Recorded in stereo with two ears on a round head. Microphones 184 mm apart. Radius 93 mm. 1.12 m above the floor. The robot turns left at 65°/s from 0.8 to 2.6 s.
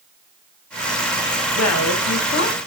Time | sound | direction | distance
1.6 | a woman speaking | 100° left | 0.8 m